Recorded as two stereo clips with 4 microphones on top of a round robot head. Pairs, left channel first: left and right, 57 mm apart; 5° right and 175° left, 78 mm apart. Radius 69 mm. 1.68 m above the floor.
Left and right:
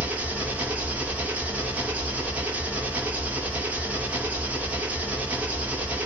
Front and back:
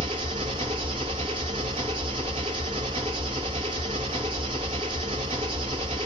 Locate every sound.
0.0 s an engine running: 150° right, 1.0 m